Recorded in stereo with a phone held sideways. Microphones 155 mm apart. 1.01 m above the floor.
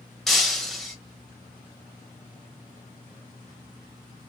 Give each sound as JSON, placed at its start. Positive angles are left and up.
{"t": 0.3, "sound": "breaking glass", "side_deg": 0, "distance_m": 1.0}